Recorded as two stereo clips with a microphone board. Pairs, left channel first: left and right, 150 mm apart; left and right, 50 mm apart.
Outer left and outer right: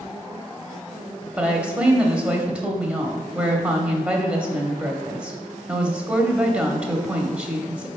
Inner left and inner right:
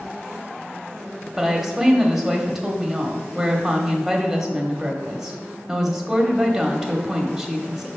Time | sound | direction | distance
1.4 | a woman speaking | 10° right (ahead or behind) | 0.9 m